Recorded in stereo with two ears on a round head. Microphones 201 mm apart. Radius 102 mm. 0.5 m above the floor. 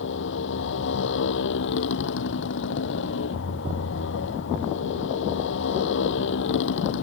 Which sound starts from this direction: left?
A motorcycle, at 0.0 s.